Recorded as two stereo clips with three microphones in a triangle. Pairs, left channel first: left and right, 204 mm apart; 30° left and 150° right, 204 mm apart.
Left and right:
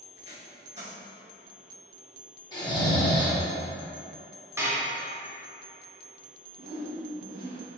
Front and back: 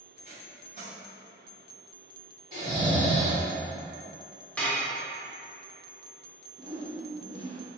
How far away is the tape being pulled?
About 1.9 m.